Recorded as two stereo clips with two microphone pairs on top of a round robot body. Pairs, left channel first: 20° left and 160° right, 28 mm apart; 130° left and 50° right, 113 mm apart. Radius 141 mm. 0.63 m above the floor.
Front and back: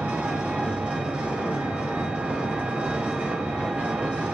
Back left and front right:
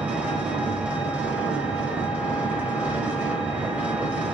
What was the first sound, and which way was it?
An engine running, 125° right.